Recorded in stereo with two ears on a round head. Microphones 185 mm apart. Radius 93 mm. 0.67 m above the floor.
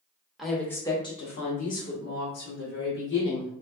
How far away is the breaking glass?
No breaking glass in this recording.